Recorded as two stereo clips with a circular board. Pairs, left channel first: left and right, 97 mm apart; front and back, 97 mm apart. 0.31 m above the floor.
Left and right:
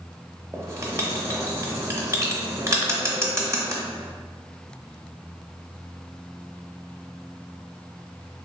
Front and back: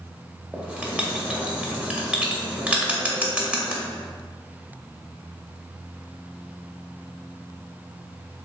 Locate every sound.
0.5 s writing: 115° right, 0.6 m